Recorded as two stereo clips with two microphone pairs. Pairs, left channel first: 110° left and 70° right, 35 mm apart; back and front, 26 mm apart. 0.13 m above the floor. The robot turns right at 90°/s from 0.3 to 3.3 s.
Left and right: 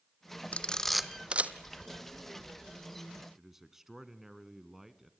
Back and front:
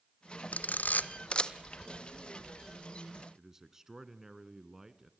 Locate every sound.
0.5 s a camera shutter: 160° left, 0.9 m; by 1.5 s 110° right, 0.9 m
3.4 s a man speaking: 15° right, 1.2 m